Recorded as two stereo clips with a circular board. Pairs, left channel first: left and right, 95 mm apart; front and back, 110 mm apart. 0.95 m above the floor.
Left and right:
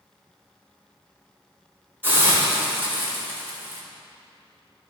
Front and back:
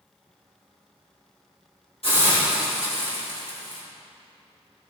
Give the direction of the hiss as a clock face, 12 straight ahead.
1 o'clock.